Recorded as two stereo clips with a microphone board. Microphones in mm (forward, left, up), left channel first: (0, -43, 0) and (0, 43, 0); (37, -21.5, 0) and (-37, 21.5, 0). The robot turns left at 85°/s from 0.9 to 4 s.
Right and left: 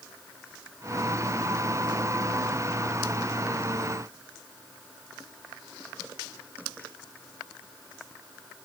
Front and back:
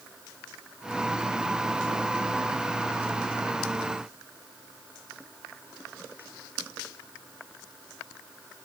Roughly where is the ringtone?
I don't hear a ringtone.